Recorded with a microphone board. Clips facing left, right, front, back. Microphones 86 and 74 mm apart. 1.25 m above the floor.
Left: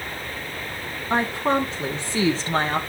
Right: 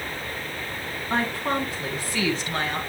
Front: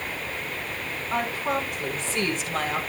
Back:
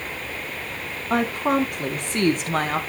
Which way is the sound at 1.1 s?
160° left.